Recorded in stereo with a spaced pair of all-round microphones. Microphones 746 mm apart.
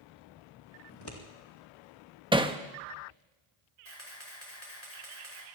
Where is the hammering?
5° right (ahead or behind), 0.7 m.